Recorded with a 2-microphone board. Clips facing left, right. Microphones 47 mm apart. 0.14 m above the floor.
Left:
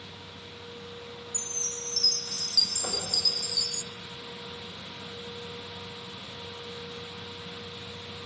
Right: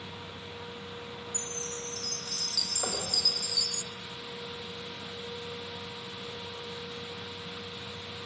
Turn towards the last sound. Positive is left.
turn(degrees=-60)  # may be behind; listen again after turning